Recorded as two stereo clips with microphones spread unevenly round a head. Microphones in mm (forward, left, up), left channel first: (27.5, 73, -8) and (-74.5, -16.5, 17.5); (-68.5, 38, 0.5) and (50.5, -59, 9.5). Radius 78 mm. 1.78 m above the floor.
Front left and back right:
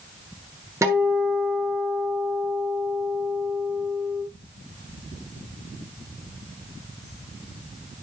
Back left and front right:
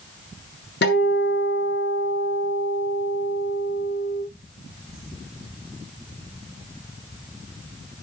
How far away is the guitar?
About 5.5 m.